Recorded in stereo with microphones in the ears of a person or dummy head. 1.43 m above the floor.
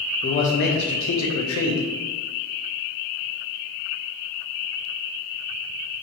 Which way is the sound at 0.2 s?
30° left (ahead or behind).